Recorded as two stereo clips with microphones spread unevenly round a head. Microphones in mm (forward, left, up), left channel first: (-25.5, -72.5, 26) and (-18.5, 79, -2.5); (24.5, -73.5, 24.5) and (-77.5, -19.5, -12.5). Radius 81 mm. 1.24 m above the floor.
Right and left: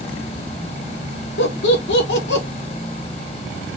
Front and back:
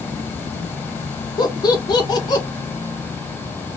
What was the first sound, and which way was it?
Laughter, 85° right.